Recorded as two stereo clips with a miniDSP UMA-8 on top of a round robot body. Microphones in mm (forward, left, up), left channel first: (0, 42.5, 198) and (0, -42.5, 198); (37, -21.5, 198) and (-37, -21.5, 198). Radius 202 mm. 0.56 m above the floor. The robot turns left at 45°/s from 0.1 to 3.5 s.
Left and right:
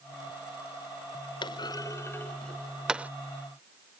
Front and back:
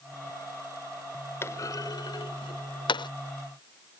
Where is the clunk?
60° left; by 3.1 s 15° right.